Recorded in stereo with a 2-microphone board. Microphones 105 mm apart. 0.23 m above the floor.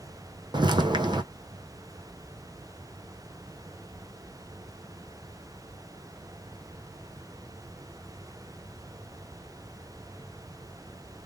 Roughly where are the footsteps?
Right.